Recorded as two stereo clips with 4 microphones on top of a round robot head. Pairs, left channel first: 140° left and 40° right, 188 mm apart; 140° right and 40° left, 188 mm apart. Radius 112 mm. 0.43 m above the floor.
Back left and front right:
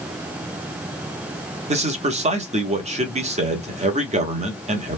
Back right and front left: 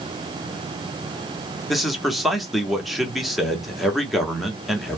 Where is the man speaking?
50° right, 1.0 m.